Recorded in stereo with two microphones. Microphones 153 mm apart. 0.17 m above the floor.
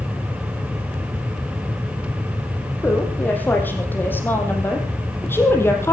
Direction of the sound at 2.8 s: 10° left (ahead or behind).